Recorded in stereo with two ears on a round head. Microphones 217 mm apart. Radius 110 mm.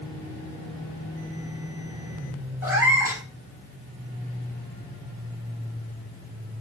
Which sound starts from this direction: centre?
A cat meowing, at 2.6 s.